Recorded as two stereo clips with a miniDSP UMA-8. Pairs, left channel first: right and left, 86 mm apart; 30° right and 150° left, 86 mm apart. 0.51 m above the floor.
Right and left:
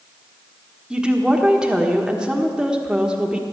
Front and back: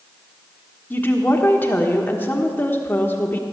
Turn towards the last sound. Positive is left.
turn(degrees=15)